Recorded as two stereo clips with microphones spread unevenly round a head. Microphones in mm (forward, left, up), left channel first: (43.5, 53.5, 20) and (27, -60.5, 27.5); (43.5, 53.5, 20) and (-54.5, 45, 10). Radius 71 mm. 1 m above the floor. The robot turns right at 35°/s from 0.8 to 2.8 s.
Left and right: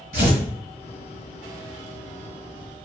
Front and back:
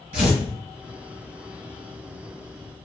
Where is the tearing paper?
135° right, 1.6 m.